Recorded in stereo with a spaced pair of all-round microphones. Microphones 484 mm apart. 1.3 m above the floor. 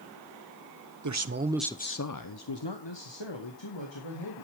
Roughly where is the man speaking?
Right.